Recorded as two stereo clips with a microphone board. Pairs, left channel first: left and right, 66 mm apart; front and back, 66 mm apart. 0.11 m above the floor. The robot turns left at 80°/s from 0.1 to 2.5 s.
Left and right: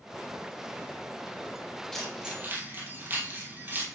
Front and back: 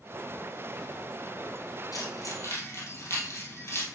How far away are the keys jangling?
About 2 m.